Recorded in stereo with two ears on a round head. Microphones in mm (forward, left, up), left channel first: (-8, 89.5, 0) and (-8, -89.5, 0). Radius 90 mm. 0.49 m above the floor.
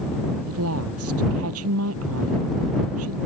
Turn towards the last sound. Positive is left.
turn(degrees=-85)